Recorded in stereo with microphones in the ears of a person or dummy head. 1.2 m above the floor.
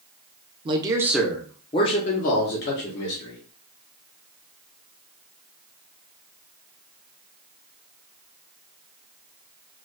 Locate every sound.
0.7 s a man speaking: 20° right (ahead or behind), 0.7 m; by 3.4 s 60° left (ahead or behind), 1.3 m